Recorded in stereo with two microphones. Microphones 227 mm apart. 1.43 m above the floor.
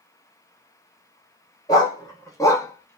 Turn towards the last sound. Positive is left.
turn(degrees=10)  # may be behind; listen again after turning